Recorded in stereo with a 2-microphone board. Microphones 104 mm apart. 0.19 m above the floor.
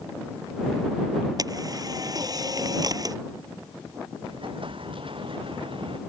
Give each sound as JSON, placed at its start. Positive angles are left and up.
{"t": 1.4, "sound": "a camera shutter", "side_deg": -40}
{"t": 4.2, "sound": "an explosion", "side_deg": -55}